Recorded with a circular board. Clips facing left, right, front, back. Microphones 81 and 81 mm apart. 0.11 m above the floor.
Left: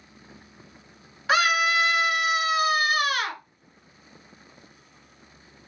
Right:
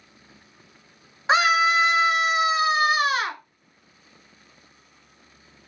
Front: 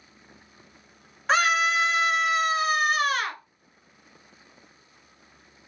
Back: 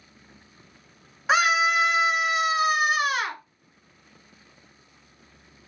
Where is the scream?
105° right, 1.1 m.